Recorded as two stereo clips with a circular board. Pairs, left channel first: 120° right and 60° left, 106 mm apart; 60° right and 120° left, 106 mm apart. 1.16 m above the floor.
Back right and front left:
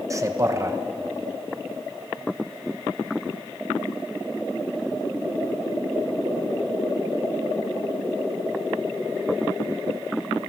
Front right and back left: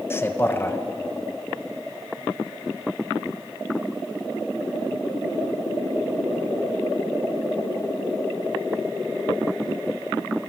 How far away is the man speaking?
About 1.2 m.